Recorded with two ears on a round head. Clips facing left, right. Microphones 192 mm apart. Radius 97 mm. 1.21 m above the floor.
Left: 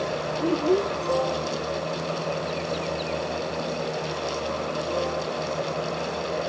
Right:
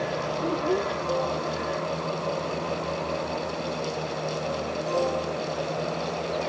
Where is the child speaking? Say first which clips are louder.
Left 5 dB; 25° left (ahead or behind).